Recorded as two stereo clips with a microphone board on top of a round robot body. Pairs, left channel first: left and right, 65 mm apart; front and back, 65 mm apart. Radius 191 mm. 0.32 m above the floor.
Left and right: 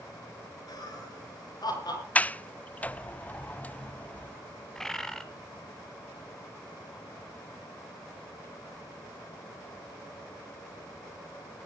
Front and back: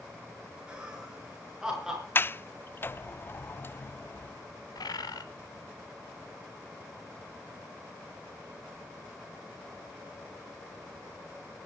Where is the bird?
5° left, 1.8 m.